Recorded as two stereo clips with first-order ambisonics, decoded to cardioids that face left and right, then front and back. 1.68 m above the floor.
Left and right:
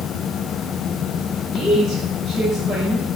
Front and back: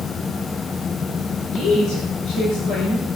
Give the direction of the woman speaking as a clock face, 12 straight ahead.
11 o'clock.